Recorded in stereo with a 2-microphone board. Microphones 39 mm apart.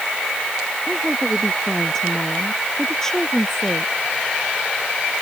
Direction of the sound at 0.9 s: 10° left (ahead or behind).